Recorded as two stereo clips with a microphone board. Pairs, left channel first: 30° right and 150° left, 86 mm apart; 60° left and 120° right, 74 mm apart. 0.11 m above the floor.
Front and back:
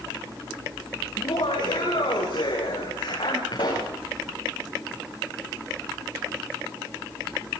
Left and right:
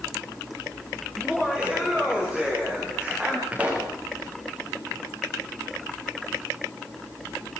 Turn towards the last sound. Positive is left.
turn(degrees=-50)